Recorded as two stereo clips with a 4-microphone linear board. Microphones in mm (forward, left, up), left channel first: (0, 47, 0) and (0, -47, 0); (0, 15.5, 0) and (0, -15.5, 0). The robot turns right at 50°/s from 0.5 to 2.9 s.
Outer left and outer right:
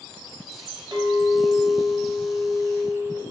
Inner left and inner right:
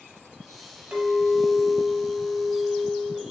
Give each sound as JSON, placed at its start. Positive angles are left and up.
{"t": 0.9, "sound": "a clink", "azimuth_deg": -125, "distance_m": 0.7}